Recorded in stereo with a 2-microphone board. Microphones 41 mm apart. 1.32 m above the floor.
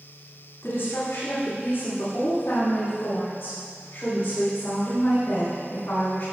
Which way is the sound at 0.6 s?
85° left.